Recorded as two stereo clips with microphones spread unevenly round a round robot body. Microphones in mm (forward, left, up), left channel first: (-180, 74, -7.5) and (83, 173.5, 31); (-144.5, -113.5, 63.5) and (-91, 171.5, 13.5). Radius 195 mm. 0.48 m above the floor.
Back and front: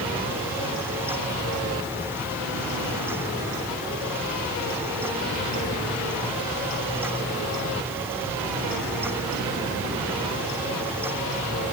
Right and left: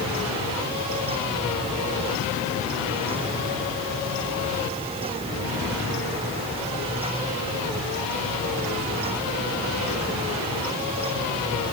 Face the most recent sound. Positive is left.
No sound to turn to.